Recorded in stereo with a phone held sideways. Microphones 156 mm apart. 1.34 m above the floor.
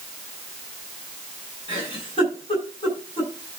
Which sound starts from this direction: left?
A giggle, at 1.7 s.